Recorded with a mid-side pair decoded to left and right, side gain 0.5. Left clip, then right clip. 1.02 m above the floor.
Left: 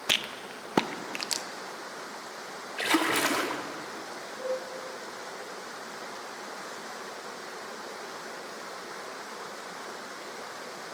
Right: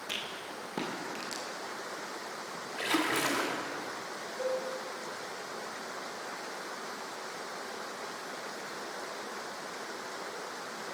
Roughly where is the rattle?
Ahead left.